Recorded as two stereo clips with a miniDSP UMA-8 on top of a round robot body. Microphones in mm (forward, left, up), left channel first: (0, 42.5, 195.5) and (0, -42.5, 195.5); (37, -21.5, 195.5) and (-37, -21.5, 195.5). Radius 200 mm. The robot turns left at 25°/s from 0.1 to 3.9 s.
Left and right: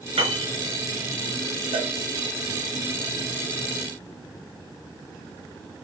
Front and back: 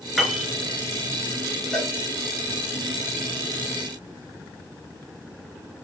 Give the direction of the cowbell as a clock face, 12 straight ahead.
3 o'clock.